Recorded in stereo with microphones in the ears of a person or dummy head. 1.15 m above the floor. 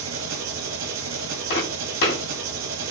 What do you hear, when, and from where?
0.0 s an engine running: 70° right (ahead or behind), 1.4 m
1.5 s footsteps: 60° left (ahead or behind), 2.5 m